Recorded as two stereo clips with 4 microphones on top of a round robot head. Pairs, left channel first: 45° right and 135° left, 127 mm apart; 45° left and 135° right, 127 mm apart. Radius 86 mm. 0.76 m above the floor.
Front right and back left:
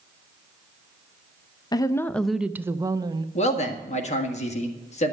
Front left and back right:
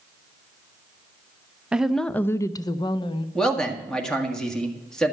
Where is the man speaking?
40° right, 1.8 m.